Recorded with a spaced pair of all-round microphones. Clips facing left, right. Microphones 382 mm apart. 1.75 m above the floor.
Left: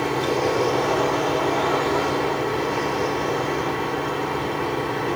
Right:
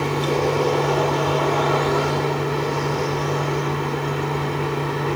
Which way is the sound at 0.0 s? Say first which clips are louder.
Right 1 dB; 15° right (ahead or behind).